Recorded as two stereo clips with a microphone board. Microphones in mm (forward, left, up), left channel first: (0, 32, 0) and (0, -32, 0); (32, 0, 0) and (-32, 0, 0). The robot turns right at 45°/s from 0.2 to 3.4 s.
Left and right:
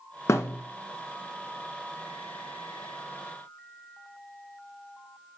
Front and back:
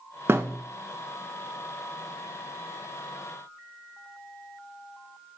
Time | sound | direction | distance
0.3 | a thud | 130° left | 1.4 m